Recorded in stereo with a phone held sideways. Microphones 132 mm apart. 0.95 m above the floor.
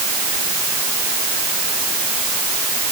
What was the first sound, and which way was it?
Only background noise.